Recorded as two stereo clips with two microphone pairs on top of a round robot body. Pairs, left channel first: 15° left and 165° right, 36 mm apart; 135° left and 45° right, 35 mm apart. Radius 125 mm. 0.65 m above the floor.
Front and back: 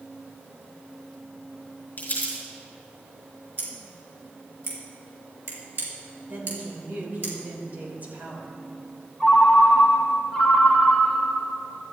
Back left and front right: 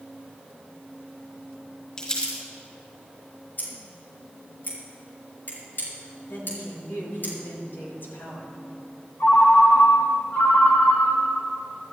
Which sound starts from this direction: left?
A ringtone, at 9.2 s.